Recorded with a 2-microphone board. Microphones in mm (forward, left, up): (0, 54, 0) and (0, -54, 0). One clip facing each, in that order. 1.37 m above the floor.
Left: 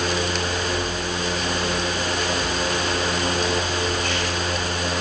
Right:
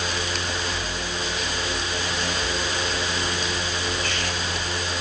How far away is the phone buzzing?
I don't hear a phone buzzing.